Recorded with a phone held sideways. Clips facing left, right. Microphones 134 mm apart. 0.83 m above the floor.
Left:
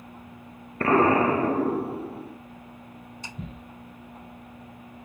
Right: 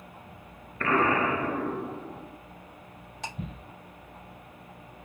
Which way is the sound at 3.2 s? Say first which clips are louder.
Right 8 dB; 75° right (ahead or behind).